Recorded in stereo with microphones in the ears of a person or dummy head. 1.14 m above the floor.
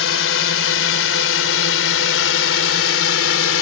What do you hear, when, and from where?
0.0 s a drone: 75° left (ahead or behind); by 3.6 s 70° left (ahead or behind)